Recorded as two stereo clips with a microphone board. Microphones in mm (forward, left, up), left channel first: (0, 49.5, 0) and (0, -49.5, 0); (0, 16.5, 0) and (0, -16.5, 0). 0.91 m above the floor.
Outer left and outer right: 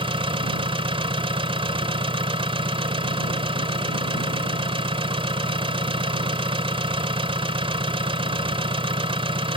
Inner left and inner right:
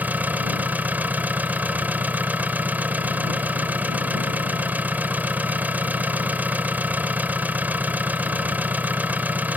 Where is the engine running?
75° right (ahead or behind).